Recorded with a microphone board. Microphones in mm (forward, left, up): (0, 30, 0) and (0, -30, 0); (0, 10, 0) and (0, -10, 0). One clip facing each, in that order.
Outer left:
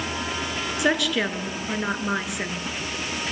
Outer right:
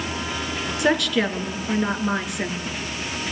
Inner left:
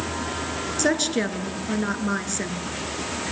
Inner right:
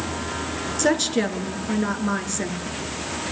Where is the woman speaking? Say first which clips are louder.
Outer right 2 dB, inner right 2 dB; centre (ahead or behind), 2.5 m.